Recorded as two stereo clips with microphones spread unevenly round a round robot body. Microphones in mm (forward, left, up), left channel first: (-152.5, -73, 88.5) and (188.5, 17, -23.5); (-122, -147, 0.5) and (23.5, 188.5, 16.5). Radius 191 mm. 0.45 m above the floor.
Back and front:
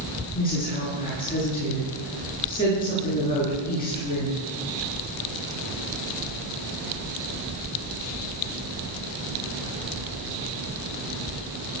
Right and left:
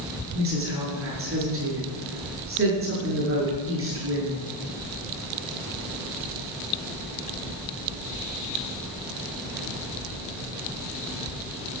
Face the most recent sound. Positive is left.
turn(degrees=125)